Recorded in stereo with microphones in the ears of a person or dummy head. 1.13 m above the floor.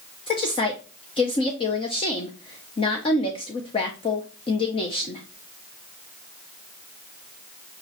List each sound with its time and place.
0.3 s a woman speaking: 25° left (ahead or behind), 0.7 m